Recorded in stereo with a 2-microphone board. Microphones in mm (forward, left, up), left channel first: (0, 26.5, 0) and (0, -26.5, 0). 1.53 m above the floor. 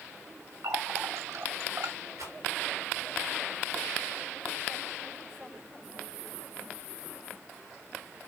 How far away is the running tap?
About 2 m.